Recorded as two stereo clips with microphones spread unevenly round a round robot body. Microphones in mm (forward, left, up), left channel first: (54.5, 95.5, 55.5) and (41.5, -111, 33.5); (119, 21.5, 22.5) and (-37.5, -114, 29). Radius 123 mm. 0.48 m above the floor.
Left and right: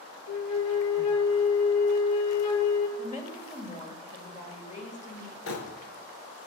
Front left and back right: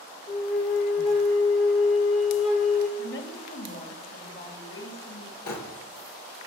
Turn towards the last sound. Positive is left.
turn(degrees=65)